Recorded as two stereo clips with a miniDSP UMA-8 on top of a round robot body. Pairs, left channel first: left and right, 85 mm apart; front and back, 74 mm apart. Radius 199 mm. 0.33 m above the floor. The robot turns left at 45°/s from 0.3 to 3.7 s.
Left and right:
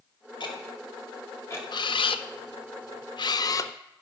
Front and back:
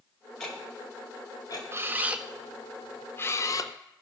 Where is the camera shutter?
125° left, 0.5 m; by 3.7 s 35° left, 0.5 m.